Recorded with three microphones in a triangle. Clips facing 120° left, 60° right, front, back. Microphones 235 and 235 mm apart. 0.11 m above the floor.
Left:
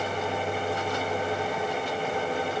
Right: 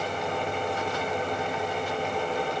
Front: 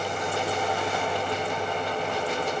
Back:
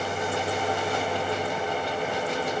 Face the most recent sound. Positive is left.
No sound to turn to.